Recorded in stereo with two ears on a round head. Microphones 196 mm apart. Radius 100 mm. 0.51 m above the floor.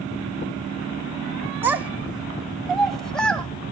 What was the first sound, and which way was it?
A child speaking, 10° right (ahead or behind).